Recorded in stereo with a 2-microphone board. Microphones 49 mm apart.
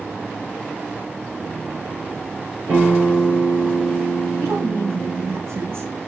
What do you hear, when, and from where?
2.7 s a guitar: 80° right, 5.5 m
4.4 s a woman speaking: 70° right (ahead or behind), 4 m